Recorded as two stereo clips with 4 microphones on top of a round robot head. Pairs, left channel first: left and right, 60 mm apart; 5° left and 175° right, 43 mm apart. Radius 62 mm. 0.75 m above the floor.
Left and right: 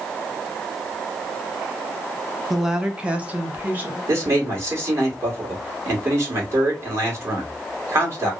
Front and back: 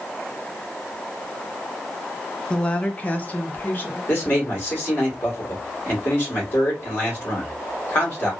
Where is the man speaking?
50° right, 1.7 m.